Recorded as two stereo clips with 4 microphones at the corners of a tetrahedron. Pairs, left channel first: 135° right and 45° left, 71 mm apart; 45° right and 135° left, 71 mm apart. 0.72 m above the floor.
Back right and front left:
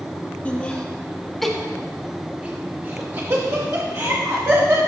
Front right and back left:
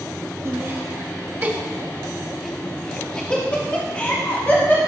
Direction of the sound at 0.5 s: 165° left.